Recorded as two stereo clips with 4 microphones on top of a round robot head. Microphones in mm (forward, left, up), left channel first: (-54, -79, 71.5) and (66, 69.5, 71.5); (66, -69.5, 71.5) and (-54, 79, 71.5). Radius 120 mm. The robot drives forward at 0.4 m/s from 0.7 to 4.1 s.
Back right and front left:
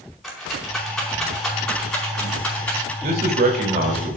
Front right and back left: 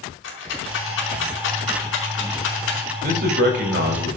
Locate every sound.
0.2 s a rattle: 40° right, 4.5 m; by 2.9 s 45° right, 4 m
3.0 s a man speaking: 90° left, 3 m; by 4.2 s 100° left, 3 m